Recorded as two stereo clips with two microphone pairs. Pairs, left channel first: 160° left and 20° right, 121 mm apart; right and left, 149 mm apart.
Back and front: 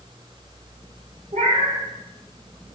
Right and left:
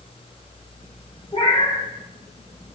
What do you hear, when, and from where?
1.3 s a cat meowing: 40° right, 0.7 m